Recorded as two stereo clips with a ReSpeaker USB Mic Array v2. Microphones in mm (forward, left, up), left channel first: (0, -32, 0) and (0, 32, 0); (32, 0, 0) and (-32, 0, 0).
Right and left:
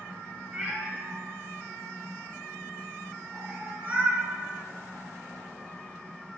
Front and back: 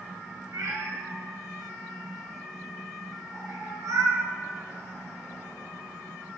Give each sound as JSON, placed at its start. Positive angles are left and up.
{"t": 0.5, "sound": "a cat meowing", "azimuth_deg": 155, "distance_m": 2.0}